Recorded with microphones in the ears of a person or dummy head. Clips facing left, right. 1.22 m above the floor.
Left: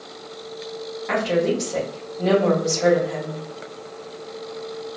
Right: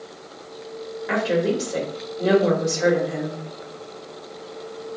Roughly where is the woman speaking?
Centre.